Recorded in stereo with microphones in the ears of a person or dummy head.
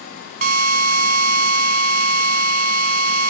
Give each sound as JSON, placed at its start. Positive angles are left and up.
{"t": 0.4, "sound": "a drill", "side_deg": -50, "distance_m": 1.1}